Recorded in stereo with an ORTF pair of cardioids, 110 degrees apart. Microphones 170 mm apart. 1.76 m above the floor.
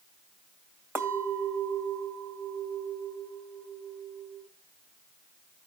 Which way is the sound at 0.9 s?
15° right.